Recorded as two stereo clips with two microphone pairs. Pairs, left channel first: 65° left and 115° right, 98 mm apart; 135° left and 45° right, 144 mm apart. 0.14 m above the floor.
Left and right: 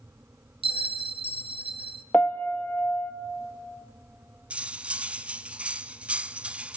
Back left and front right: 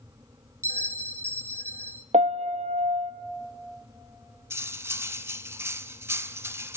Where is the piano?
5° right, 1.0 m.